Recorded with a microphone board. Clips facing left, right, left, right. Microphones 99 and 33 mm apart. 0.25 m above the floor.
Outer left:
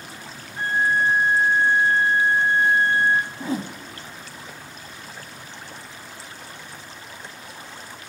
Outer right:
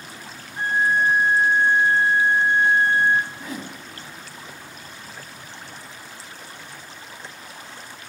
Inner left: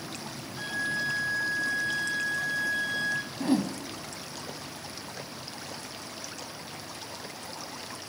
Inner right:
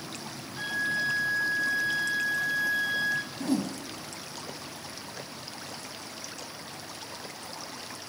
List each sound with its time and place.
0.6 s a violin: 15° right (ahead or behind), 0.9 m
3.4 s a whoosh: 30° left (ahead or behind), 1.1 m